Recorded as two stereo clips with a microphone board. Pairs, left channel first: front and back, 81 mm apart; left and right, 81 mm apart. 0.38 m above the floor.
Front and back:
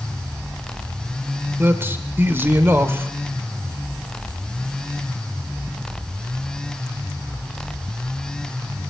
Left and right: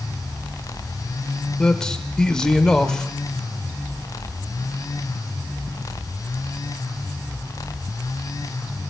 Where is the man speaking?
160° left, 1.2 m.